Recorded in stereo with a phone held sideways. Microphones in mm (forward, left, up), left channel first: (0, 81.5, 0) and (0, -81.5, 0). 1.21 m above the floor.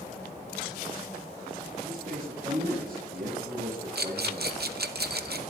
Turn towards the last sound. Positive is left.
turn(degrees=-75)  # may be behind; listen again after turning